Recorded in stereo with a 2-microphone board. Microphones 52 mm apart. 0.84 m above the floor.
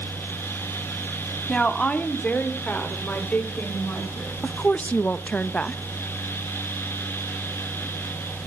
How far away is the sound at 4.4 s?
About 0.5 m.